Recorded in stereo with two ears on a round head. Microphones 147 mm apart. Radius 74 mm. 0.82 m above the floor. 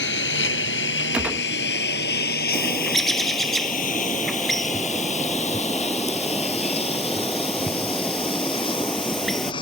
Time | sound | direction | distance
0.0 | a lawn mower | 85° left | ?
1.1 | a gunshot | 5° right (ahead or behind) | ?
2.5 | a bird | centre (ahead or behind) | ?